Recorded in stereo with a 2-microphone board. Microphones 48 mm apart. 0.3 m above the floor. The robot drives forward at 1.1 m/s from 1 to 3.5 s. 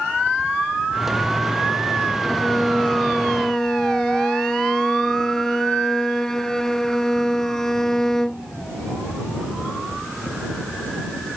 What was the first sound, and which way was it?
A violin, 10° left (ahead or behind).